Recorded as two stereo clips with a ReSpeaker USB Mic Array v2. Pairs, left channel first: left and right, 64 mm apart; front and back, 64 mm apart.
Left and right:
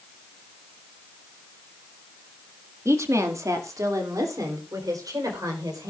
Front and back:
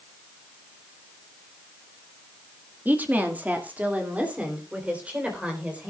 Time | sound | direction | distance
2.9 | a woman speaking | 125° right | 1.5 m